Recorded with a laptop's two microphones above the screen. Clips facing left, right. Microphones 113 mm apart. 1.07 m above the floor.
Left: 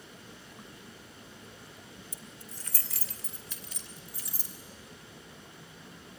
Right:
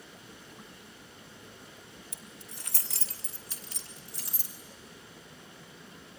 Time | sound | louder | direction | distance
2.1 | keys jangling | left 1 dB | 65° right (ahead or behind) | 1.0 m